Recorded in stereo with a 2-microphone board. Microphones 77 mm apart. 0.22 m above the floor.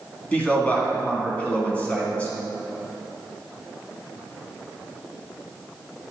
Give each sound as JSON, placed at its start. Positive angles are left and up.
{"t": 0.3, "sound": "a man speaking", "side_deg": 20, "distance_m": 2.5}